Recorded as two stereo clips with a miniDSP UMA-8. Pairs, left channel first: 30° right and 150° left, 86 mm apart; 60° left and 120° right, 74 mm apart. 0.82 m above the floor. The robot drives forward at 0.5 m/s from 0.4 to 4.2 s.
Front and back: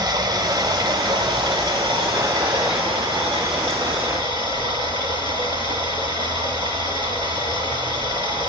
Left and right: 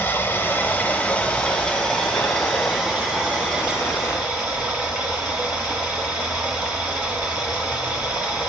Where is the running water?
115° left, 1.2 m; by 8.5 s 160° left, 2.5 m.